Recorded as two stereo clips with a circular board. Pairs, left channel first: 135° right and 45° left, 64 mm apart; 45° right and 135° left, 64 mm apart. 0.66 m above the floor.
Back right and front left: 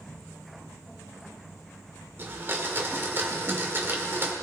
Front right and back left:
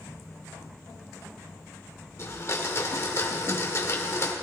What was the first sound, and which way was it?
A blender, 5° right.